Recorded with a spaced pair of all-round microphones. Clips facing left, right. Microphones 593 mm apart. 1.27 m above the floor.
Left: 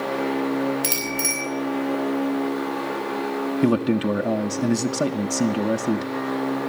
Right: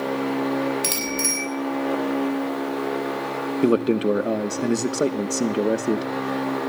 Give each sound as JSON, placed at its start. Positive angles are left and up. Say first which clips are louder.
{"t": 0.8, "sound": "a bicycle bell", "louder": "right 1 dB", "side_deg": -30, "distance_m": 6.5}
{"t": 3.6, "sound": "a man speaking", "louder": "right 2 dB", "side_deg": 25, "distance_m": 0.9}